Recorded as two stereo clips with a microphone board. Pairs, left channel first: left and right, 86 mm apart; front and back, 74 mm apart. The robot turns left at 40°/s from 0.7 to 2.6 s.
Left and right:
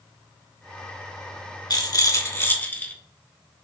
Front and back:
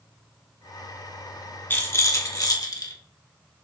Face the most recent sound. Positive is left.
turn(degrees=25)